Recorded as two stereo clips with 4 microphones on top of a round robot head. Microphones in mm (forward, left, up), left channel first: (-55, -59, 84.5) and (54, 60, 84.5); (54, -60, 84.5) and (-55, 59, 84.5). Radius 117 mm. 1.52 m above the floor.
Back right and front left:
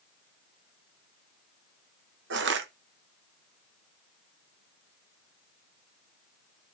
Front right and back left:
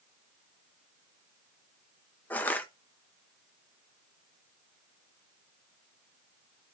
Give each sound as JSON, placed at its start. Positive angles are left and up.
{"t": 2.3, "sound": "crushing", "azimuth_deg": 35, "distance_m": 0.7}